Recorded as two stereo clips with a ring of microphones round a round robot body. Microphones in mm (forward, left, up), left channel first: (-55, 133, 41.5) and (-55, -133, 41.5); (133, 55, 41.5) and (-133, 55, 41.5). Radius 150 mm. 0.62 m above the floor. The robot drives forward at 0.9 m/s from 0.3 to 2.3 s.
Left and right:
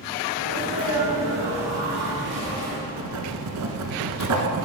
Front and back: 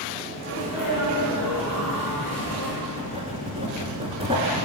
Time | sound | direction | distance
0.4 | a sneeze | 65° right | 5 m
2.9 | writing | 105° right | 1.3 m